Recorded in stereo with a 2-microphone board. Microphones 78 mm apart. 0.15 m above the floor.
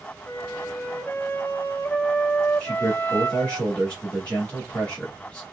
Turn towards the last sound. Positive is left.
turn(degrees=15)  # may be behind; listen again after turning